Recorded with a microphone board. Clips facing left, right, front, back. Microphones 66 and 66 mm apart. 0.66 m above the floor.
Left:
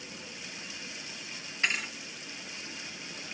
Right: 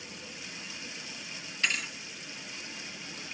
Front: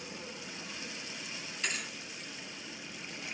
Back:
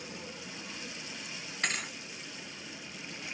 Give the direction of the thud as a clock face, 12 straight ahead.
7 o'clock.